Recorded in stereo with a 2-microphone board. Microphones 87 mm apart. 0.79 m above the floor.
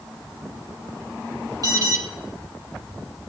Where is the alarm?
45° right (ahead or behind), 2.5 m.